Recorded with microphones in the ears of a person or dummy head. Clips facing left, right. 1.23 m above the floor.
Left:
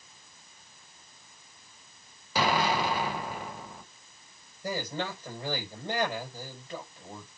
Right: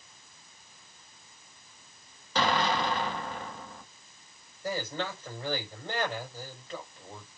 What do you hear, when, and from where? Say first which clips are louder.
2.4 s an explosion: left 1 dB; 10° left (ahead or behind), 1.0 m
4.6 s a man speaking: even; 15° left (ahead or behind), 5 m